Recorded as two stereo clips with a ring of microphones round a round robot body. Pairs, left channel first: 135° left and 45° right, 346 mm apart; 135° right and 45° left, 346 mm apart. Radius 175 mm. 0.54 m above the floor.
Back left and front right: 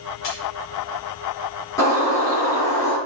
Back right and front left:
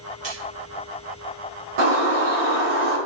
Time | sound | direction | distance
0.2 | a splash | 100° left | 5 m
1.8 | a bird | 55° left | 6.5 m